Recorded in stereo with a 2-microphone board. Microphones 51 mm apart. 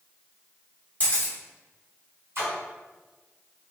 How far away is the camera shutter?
About 1.5 m.